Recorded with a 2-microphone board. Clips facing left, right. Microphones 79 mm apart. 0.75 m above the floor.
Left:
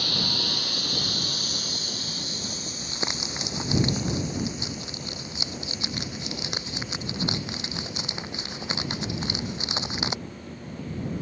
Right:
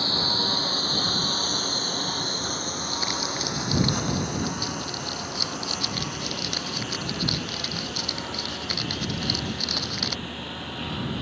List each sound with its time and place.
0.0 s a lawn mower: 30° right (ahead or behind); by 11.2 s 90° right
2.8 s crumpling: 20° left (ahead or behind)